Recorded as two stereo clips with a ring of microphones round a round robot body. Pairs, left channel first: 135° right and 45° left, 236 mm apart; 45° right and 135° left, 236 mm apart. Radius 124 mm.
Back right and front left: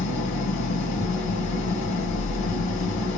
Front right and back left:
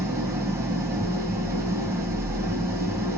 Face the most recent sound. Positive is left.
turn(degrees=-145)